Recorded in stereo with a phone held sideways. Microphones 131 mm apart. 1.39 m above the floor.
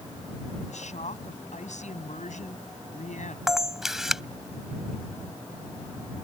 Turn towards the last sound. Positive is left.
turn(degrees=-5)  # may be behind; listen again after turning